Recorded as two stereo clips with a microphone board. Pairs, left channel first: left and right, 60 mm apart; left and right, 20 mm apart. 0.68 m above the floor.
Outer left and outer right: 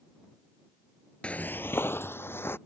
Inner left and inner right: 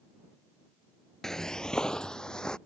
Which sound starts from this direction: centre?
Footsteps, at 1.2 s.